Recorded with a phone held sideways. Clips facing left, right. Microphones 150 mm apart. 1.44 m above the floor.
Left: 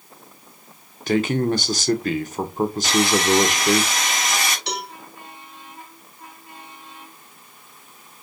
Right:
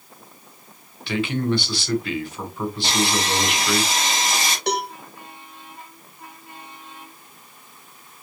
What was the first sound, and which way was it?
A man speaking, 45° left (ahead or behind).